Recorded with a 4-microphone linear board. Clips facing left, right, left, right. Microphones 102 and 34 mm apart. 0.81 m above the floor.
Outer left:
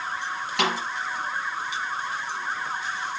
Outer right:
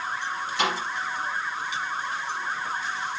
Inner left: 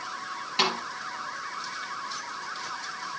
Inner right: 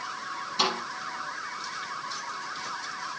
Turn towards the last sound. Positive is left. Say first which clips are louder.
# outer left 1 dB, inner left 1 dB
turn(degrees=70)  # may be behind; listen again after turning